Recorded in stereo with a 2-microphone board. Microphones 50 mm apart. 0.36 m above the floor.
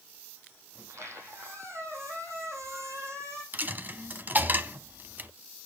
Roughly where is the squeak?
Right.